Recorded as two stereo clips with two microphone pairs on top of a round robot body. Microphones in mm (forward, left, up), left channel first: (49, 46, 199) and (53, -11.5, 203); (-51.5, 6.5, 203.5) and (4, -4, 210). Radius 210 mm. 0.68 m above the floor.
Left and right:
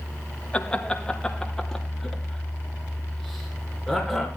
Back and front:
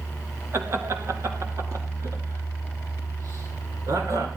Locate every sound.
0.5 s laughter: 25° left, 2.0 m; by 4.3 s 5° left, 5.5 m